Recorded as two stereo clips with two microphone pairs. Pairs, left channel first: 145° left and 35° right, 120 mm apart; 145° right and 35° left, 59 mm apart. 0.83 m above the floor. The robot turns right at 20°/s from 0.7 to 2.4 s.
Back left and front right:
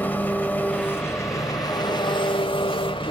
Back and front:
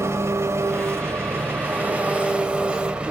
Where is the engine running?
70° left, 1.4 m; by 3.1 s 105° left, 1.4 m.